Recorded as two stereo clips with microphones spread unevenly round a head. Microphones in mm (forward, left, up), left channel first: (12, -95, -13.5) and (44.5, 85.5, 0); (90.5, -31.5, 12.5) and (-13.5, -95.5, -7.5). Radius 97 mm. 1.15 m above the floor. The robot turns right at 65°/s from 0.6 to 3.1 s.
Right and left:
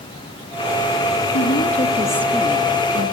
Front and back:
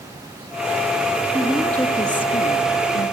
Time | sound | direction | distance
1.3 | a woman speaking | 75° right | 2.5 m